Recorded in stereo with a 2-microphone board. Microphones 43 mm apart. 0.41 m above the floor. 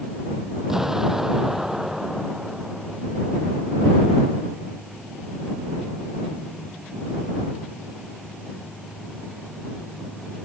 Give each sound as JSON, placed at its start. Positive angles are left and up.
{"t": 0.7, "sound": "an explosion", "side_deg": -10}